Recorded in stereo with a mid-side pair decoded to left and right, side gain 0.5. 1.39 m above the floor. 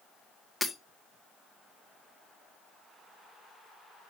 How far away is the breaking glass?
About 1.7 m.